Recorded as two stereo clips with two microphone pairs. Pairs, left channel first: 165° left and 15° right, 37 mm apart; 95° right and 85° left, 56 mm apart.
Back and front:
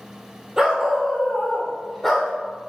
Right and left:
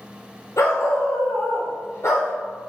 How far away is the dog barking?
About 2.5 m.